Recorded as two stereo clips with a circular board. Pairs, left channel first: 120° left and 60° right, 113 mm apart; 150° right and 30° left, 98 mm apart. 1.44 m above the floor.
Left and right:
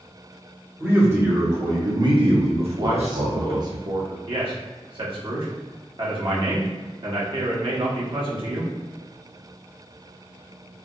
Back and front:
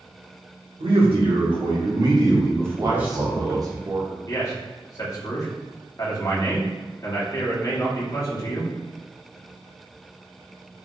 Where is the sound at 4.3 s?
95° right, 1.1 m.